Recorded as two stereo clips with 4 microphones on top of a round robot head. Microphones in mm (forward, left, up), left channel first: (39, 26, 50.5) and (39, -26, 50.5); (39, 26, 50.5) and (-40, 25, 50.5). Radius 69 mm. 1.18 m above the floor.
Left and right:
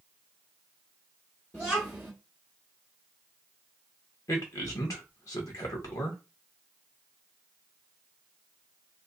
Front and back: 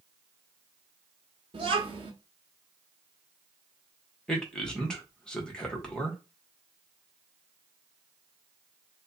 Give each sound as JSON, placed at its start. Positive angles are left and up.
{"t": 1.5, "sound": "a child speaking", "azimuth_deg": 165, "distance_m": 1.2}
{"t": 4.3, "sound": "a man speaking", "azimuth_deg": 80, "distance_m": 1.5}